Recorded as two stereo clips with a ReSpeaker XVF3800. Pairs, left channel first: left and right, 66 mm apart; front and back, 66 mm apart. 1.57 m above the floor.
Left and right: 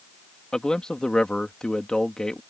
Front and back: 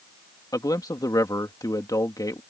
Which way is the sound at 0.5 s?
10° left.